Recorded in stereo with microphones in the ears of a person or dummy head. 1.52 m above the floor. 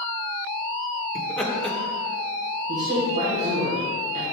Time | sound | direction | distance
1.1 | laughter | 5° left (ahead or behind) | 1.4 m
2.7 | a woman speaking | 35° right (ahead or behind) | 1.8 m